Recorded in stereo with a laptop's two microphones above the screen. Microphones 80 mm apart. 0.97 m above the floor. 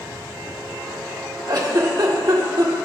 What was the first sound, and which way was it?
A giggle, 55° right (ahead or behind).